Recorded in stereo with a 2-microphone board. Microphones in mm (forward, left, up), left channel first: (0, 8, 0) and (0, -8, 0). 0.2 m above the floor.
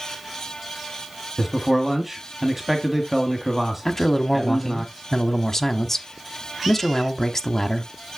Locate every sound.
1.4 s a man speaking: 15° right (ahead or behind), 1.1 m
3.9 s a man speaking: 20° left (ahead or behind), 1.0 m